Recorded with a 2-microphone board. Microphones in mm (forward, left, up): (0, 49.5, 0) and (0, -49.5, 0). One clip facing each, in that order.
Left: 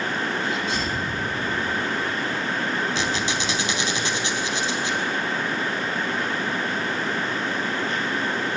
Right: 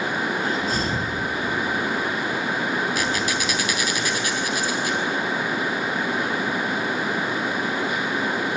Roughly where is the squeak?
Left.